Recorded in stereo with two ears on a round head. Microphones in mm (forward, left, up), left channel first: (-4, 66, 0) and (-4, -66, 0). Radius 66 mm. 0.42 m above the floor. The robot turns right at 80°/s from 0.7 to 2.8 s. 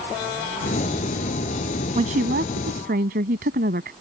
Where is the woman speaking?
135° right; by 3.9 s 65° right.